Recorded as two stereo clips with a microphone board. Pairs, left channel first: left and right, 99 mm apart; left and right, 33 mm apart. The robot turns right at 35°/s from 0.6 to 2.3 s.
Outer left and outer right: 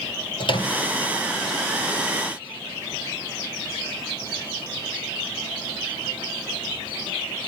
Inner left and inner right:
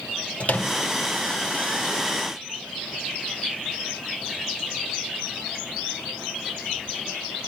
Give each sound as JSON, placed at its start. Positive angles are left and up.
{"t": 0.4, "sound": "a microwave", "side_deg": 50, "distance_m": 2.5}